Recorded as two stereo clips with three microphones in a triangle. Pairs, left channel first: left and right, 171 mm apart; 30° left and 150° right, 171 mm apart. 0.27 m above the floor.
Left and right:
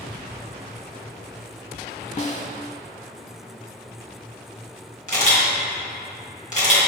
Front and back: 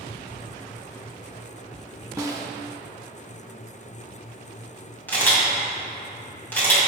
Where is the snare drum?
140° left, 0.6 m.